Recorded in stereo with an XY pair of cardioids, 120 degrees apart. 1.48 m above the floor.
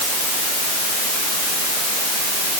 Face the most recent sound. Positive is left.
No sound to turn to.